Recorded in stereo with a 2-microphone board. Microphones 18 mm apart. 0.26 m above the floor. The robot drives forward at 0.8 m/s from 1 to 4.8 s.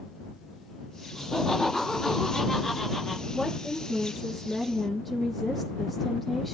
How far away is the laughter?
About 2.5 m.